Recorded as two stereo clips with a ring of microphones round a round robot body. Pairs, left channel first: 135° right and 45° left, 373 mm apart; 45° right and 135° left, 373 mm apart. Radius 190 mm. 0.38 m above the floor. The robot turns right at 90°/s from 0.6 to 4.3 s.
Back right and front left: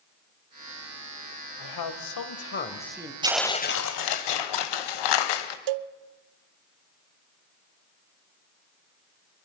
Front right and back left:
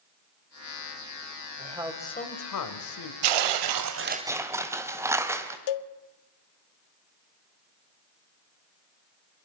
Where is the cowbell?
Straight ahead, 0.6 m.